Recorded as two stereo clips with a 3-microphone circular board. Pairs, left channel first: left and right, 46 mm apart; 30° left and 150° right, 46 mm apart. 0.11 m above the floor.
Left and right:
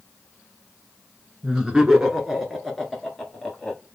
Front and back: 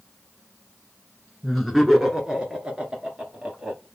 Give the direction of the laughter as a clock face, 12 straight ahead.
2 o'clock.